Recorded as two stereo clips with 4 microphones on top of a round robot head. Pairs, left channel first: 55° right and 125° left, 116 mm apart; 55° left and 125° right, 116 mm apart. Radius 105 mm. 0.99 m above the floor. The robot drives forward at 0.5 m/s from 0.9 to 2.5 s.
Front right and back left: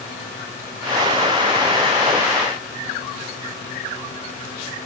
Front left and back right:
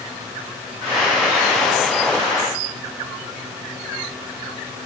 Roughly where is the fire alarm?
No fire alarm in this recording.